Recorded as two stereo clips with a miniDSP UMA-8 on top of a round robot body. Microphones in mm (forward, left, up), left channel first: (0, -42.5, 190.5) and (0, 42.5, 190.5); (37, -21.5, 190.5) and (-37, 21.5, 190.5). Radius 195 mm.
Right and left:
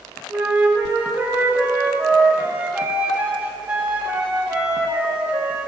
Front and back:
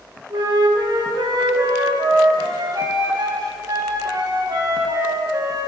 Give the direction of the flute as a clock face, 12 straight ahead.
7 o'clock.